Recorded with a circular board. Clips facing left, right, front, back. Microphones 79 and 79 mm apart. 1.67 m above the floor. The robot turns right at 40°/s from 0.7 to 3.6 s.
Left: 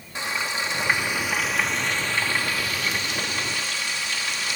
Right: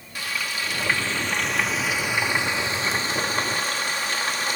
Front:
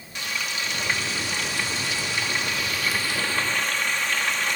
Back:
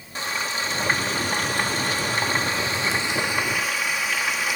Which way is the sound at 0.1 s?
145° left.